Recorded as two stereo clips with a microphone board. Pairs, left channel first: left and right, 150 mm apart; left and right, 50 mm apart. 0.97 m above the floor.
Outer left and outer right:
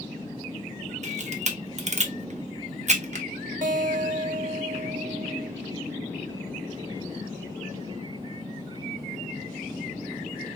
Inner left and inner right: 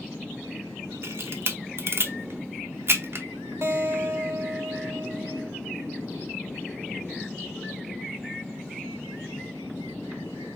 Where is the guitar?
60° right (ahead or behind), 1.2 m.